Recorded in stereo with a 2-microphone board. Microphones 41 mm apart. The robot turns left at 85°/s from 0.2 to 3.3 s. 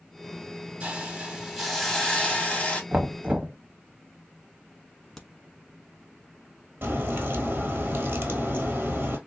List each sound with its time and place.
0.8 s a hiss: 110° right, 1.5 m; by 2.8 s 80° left, 1.5 m
2.9 s knocking: 70° right, 0.7 m; by 3.6 s 105° right, 0.7 m
5.2 s a crack: 5° left (ahead or behind), 0.8 m
6.8 s a crack: 60° right (ahead or behind), 1.1 m